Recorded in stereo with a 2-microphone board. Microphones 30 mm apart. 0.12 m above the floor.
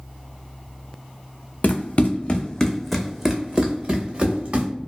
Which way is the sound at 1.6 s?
60° left (ahead or behind).